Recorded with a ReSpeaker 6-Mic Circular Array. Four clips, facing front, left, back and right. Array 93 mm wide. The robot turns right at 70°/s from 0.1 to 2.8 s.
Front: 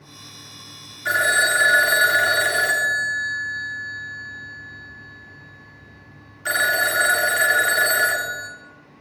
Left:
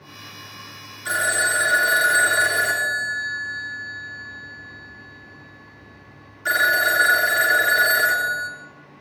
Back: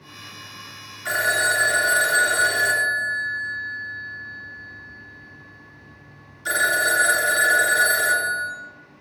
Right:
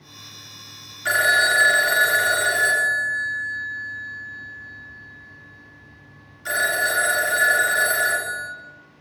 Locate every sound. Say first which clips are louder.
1.1 s a phone ringing: right 3 dB, front 2 dB; 95° right, 0.9 m; by 8.5 s 30° left, 0.9 m